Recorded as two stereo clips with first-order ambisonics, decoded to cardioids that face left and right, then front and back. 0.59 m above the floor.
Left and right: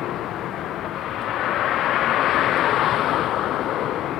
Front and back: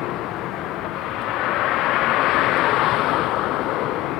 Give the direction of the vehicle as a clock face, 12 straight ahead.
11 o'clock.